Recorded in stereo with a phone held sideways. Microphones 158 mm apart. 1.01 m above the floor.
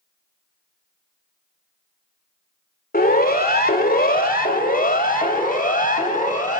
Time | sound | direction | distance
2.9 | a siren | 80° left | 2.5 m